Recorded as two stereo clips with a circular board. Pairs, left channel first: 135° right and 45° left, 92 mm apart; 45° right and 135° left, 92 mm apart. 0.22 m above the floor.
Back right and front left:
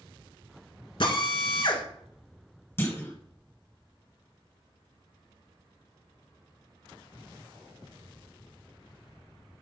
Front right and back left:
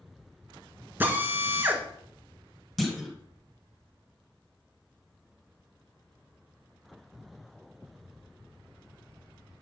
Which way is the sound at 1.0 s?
155° right.